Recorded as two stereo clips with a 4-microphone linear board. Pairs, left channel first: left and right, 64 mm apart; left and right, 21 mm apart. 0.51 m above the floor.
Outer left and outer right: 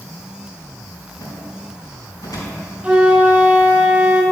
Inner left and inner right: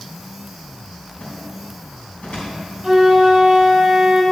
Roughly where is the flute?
Centre.